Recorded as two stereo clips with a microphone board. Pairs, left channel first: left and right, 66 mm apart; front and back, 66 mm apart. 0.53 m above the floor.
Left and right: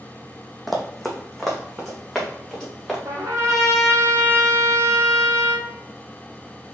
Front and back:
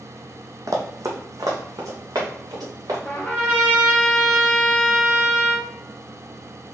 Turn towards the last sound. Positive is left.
turn(degrees=-70)